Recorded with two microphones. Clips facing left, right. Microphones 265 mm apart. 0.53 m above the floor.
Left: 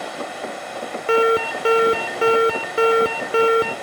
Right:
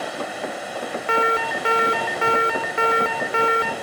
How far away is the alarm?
About 0.5 m.